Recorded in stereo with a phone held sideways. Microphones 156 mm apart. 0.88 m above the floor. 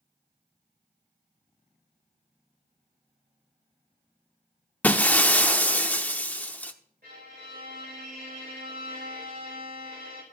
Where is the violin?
70° right (ahead or behind), 4 m.